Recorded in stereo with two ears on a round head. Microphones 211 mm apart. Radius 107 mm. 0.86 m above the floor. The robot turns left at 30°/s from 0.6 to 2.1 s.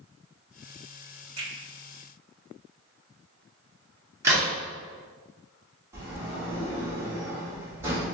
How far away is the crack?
About 1.7 m.